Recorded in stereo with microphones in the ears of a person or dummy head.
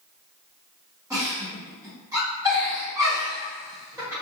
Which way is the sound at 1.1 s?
15° right (ahead or behind).